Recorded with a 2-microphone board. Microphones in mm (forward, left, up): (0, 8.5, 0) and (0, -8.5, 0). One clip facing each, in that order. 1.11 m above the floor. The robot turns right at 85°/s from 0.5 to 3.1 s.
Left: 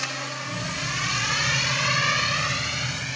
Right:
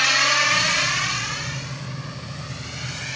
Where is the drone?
60° right (ahead or behind); by 3.2 s 5° right (ahead or behind).